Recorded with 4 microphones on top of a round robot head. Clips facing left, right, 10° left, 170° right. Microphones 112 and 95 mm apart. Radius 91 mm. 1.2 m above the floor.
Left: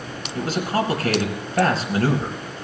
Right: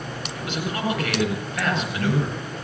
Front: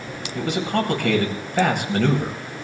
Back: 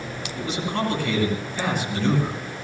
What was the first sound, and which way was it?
A man speaking, 40° left.